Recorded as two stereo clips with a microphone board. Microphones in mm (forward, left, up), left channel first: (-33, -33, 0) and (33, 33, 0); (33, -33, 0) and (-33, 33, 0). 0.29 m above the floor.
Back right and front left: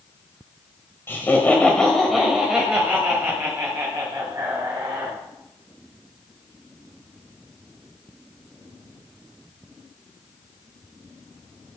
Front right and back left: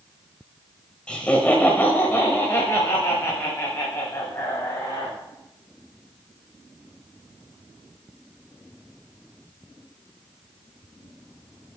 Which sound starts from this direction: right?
Laughter, at 1.1 s.